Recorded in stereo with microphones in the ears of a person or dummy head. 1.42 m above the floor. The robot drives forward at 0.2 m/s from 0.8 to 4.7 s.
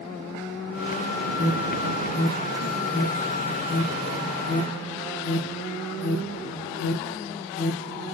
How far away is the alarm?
About 0.8 m.